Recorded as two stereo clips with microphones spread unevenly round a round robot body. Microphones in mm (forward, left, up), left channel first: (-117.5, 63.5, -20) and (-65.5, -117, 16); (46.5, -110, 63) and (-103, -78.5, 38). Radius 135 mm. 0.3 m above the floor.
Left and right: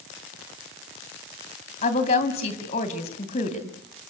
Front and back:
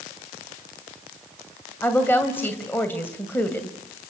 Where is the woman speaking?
70° left, 2 m.